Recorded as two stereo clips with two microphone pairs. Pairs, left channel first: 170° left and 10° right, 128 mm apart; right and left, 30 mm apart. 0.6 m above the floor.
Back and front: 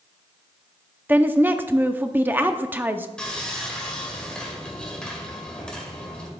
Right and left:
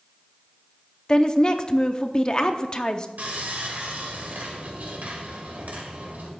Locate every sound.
1.1 s a woman speaking: 75° right, 0.6 m
3.2 s sawing: 85° left, 2.0 m